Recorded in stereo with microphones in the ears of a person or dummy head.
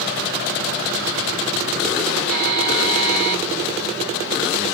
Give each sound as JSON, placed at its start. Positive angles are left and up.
{"t": 2.3, "sound": "a buzzer", "side_deg": -55, "distance_m": 1.5}